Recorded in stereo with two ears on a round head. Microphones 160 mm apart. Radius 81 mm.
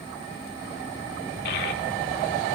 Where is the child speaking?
65° left (ahead or behind), 2 m.